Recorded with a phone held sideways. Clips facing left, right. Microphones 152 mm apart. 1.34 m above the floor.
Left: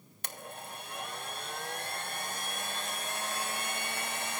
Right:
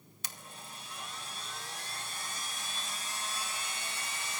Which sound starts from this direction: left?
A blender, at 0.2 s.